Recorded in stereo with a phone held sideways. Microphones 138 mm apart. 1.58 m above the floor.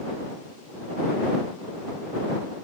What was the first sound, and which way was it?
Only background noise.